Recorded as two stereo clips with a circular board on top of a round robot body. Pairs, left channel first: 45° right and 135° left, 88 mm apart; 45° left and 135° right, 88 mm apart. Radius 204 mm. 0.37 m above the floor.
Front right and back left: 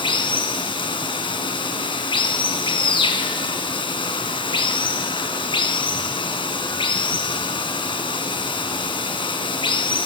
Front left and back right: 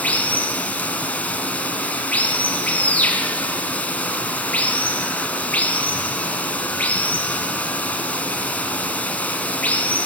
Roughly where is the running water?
Ahead right.